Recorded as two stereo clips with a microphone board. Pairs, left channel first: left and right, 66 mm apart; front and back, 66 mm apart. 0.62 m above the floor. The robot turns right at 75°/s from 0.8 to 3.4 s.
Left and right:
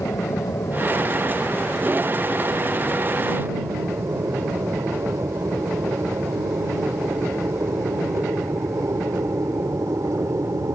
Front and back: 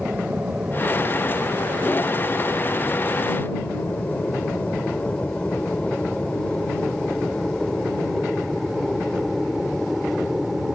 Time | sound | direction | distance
0.0 | an aircraft | 110° left | ?